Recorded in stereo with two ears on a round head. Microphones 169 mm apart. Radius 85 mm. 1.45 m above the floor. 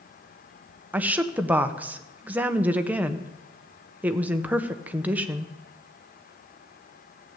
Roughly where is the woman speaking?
Centre.